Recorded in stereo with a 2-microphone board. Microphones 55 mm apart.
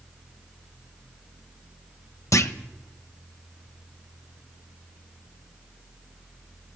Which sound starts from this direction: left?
A clunk, at 2.3 s.